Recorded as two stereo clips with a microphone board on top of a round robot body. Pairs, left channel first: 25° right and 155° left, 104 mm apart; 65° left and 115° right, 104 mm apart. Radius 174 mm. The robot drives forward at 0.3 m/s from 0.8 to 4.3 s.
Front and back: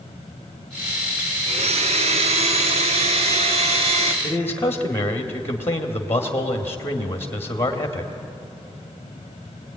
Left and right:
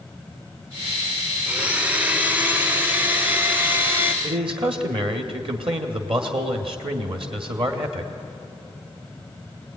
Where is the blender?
170° left, 0.8 m; by 4.1 s 175° left, 1.6 m.